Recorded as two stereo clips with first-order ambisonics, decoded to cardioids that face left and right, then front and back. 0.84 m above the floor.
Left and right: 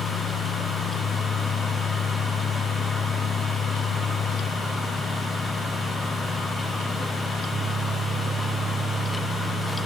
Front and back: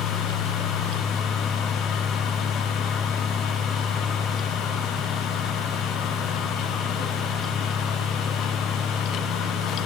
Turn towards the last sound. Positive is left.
No sound to turn to.